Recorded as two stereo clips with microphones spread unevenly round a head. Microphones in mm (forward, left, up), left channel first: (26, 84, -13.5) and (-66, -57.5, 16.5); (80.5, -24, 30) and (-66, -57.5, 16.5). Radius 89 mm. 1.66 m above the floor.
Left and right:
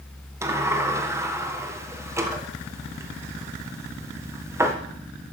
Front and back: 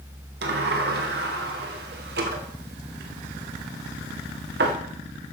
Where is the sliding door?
165° left, 1.6 m.